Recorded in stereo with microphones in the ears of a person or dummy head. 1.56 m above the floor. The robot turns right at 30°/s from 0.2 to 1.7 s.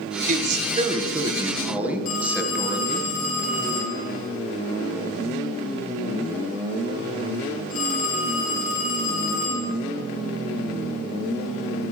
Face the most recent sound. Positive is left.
turn(degrees=45)  # may be behind; listen again after turning